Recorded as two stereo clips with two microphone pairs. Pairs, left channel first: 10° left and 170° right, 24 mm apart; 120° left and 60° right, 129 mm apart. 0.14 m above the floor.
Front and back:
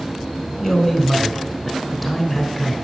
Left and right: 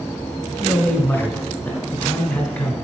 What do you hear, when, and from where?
0.6 s a man speaking: 55° left, 1.0 m